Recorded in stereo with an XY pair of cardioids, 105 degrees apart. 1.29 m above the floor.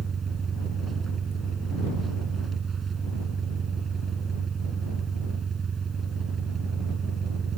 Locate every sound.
0.0 s an engine running: 40° right